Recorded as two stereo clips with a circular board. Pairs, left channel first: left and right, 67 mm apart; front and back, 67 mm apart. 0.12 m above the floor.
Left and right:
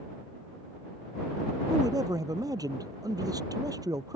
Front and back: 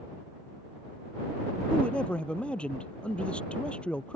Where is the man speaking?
75° right.